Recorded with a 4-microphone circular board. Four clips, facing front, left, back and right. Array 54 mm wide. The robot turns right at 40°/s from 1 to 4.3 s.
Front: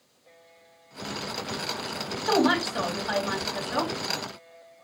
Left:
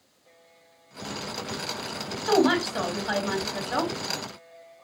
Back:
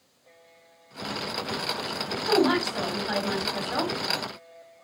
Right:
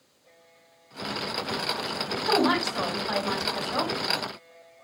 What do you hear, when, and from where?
2.3 s a woman speaking: 45° left, 1.5 m; by 3.9 s 110° left, 1.5 m